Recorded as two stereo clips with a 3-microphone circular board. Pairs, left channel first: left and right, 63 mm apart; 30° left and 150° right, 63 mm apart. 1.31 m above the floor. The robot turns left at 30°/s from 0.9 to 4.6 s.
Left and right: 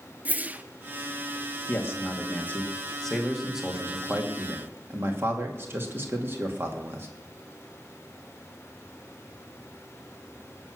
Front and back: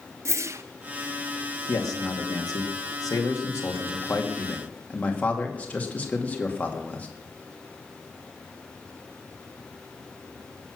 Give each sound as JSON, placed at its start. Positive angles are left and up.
{"t": 0.2, "sound": "a whoosh", "azimuth_deg": -145, "distance_m": 0.5}
{"t": 1.7, "sound": "a man speaking", "azimuth_deg": 50, "distance_m": 2.0}